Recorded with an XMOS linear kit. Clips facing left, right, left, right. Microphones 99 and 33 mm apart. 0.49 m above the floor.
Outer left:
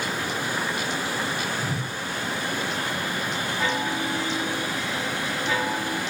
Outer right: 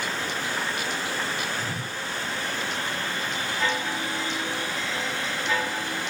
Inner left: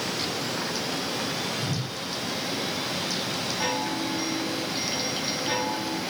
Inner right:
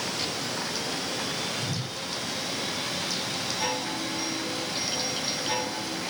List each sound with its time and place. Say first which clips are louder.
1.6 s a whoosh: outer left 3 dB, inner left 2 dB; centre (ahead or behind), 4.5 m
3.6 s a chime: outer left 2 dB, inner left 3 dB; 10° left (ahead or behind), 9 m